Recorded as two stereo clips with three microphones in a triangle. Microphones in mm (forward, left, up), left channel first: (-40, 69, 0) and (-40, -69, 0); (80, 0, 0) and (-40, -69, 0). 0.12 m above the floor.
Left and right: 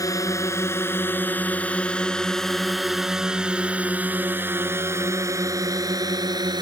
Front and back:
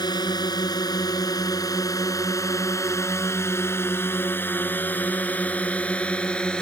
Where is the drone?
50° left; by 6.6 s 50° right.